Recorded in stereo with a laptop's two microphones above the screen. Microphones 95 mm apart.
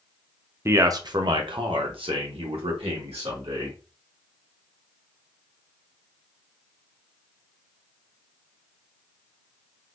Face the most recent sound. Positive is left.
turn(degrees=-75)  # may be behind; listen again after turning